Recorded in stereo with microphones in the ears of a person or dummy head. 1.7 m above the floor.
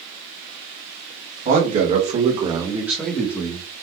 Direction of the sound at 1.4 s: 45° right (ahead or behind).